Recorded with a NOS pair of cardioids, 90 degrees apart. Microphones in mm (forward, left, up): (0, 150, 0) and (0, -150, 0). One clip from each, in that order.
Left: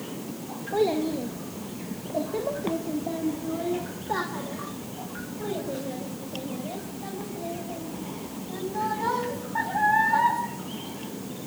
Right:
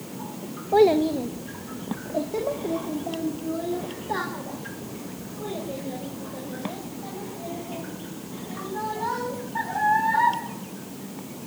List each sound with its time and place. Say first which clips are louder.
0.7 s a child speaking: right 7 dB; 40° right, 1.1 m; by 10.4 s 10° left, 9 m